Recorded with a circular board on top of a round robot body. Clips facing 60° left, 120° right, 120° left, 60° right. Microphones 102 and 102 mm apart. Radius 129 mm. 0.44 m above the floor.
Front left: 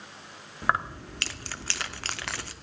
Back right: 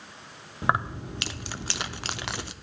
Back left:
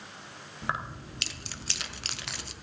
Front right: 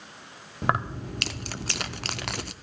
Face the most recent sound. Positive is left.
turn(degrees=-50)